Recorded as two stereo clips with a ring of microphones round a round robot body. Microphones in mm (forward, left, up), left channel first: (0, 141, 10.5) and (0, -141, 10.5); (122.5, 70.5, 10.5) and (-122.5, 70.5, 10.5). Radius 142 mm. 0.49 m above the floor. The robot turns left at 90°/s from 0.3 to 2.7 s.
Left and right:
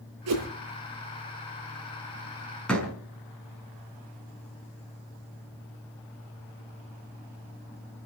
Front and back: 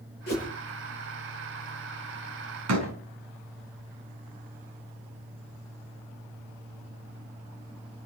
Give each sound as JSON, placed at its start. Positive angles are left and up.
{"t": 0.3, "sound": "a whoosh", "azimuth_deg": -55, "distance_m": 7.5}
{"t": 2.7, "sound": "a door slam", "azimuth_deg": 175, "distance_m": 4.5}